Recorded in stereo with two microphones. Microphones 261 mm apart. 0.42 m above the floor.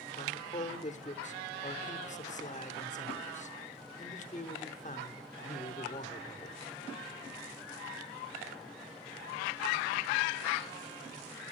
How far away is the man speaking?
About 0.9 m.